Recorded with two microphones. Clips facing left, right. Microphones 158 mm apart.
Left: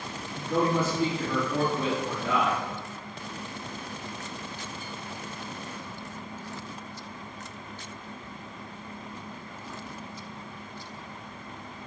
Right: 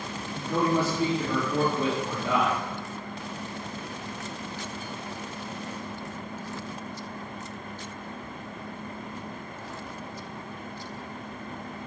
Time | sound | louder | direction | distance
0.3 | a man speaking | even | 35° right (ahead or behind) | 2.0 m